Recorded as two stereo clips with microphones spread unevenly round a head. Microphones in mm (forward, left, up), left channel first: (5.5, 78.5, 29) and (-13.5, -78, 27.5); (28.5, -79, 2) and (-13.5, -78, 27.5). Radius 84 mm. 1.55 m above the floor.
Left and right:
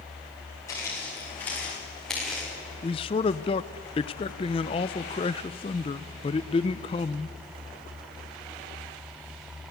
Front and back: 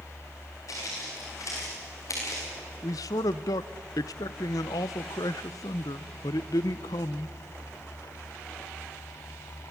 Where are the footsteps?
10° left, 7 m; by 2.5 s 10° right, 7.5 m.